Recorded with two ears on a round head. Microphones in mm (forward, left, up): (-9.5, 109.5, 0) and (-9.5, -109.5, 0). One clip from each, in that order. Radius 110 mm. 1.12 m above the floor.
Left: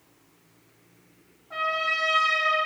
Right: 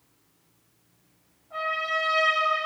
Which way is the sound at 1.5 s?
65° left (ahead or behind).